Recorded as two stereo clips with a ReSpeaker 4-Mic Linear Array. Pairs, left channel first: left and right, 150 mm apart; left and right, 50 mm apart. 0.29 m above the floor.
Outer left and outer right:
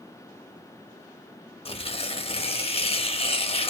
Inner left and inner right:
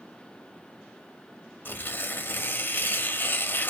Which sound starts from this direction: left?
Tearing paper, at 1.6 s.